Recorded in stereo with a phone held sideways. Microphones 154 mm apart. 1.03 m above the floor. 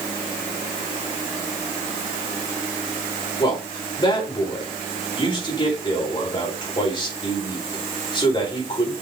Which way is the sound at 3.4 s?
30° left (ahead or behind).